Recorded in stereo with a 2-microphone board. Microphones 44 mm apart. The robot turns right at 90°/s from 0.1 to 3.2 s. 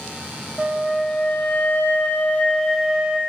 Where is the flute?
20° right, 0.5 m; by 3.2 s 145° right, 0.5 m.